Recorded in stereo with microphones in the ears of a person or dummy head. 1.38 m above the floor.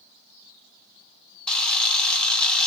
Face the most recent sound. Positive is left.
turn(degrees=5)  # may be behind; listen again after turning